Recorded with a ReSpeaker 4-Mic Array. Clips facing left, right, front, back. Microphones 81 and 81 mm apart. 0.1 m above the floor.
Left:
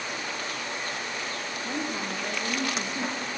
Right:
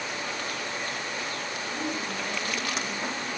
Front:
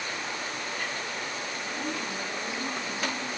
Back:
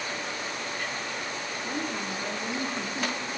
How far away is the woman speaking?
About 8.5 m.